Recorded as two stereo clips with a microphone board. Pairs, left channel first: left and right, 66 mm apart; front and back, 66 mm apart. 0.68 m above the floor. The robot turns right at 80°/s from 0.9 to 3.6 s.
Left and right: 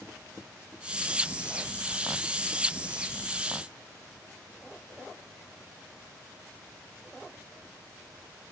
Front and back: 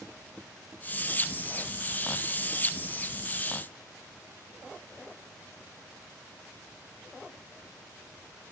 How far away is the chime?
I don't hear a chime.